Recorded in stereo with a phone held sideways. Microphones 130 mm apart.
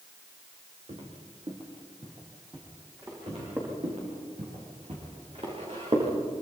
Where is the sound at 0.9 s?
50° right (ahead or behind), 4 m; by 3.8 s 20° right (ahead or behind), 7 m.